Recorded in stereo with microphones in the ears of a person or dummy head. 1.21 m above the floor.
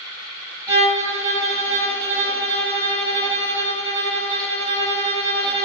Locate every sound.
0.7 s a violin: 20° right (ahead or behind), 1.5 m